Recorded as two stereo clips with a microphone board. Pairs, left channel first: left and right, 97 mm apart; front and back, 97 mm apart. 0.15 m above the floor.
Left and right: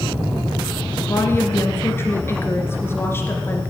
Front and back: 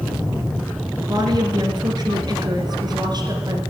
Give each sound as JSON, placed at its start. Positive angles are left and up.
{"t": 1.0, "sound": "a woman speaking", "azimuth_deg": 150, "distance_m": 2.0}